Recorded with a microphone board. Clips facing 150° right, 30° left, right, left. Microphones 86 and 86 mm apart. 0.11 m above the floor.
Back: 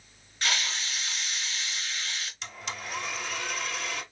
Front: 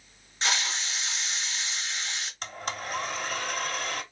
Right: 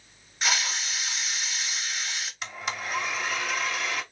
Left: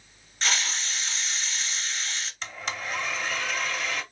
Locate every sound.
0.4 s a hiss: 15° right, 0.8 m
2.4 s a blender: 5° right, 0.8 m